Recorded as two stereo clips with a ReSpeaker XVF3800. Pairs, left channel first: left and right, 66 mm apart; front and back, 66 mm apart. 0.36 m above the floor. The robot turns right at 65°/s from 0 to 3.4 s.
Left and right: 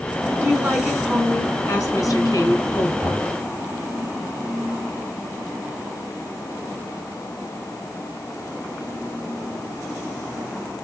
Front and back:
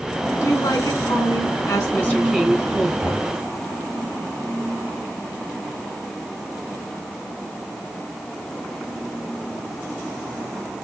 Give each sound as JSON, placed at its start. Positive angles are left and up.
{"t": 0.4, "sound": "a woman speaking", "azimuth_deg": -50, "distance_m": 3.0}
{"t": 3.0, "sound": "knocking", "azimuth_deg": 100, "distance_m": 5.5}